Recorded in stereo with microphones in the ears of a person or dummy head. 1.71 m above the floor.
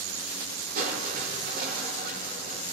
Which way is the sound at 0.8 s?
50° right (ahead or behind).